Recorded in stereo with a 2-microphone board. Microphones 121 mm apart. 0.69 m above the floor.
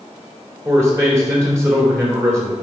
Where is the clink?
No clink in this recording.